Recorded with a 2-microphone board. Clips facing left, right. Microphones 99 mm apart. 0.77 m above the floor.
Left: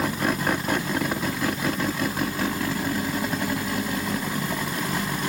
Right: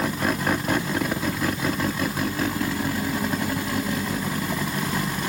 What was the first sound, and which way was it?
Only background noise.